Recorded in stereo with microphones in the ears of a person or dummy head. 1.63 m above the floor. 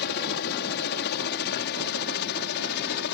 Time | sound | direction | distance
0.0 | a helicopter | 60° left (ahead or behind) | ?